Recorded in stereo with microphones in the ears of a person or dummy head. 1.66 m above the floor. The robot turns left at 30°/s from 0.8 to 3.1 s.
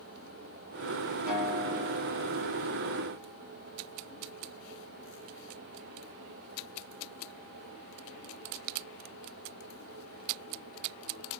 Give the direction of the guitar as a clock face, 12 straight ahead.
4 o'clock.